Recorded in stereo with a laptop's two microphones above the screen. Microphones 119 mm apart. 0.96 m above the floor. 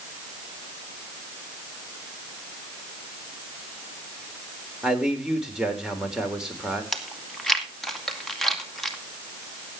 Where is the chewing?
5° left (ahead or behind), 2 m.